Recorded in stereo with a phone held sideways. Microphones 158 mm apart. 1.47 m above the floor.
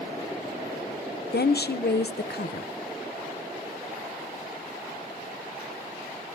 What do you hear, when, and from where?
1.3 s a woman speaking: 80° left, 0.8 m